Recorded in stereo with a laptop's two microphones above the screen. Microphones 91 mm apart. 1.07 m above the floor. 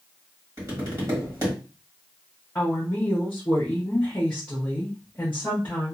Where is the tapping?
35° right (ahead or behind), 1.7 m.